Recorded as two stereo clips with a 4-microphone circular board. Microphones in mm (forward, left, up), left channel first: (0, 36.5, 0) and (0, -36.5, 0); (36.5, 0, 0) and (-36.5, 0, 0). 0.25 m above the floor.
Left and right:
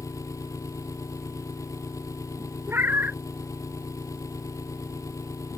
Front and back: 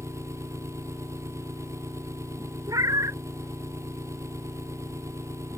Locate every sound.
0.0 s an engine running: 135° left
2.7 s a cat meowing: 150° right